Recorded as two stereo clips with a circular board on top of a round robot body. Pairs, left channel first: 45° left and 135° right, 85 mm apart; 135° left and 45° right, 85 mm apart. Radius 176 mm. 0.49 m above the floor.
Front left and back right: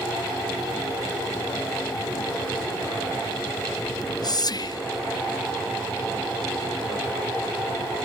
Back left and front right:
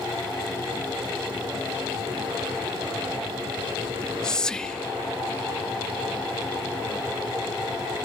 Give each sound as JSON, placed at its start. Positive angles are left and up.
{"t": 3.9, "sound": "whispering", "azimuth_deg": 55, "distance_m": 1.1}